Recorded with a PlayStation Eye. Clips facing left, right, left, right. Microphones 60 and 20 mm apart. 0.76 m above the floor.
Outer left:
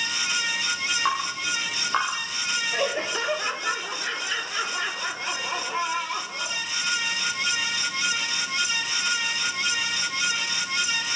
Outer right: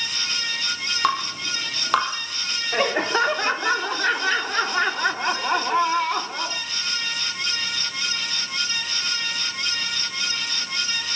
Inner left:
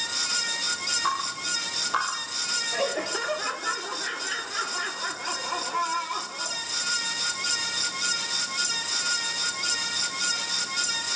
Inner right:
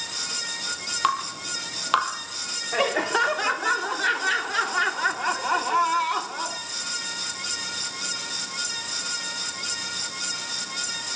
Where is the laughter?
65° right (ahead or behind), 2 m.